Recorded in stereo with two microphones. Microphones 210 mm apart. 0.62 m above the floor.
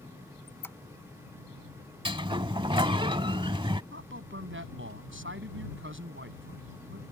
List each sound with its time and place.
0.5 s a squeak: 10° left (ahead or behind)
2.0 s a sliding door: 25° right (ahead or behind)
3.9 s a man speaking: 70° right (ahead or behind)